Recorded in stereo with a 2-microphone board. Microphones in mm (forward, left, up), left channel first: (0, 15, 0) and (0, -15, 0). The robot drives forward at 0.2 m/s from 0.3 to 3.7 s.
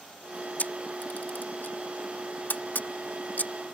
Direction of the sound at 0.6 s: 70° left (ahead or behind).